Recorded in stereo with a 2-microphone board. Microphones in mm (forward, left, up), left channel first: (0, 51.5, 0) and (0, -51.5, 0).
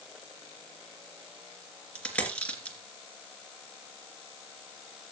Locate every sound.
1.9 s a dropped coin: 15° left (ahead or behind), 3 m